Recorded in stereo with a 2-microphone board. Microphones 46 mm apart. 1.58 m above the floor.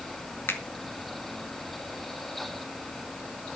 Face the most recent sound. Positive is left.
turn(degrees=60)  # may be behind; listen again after turning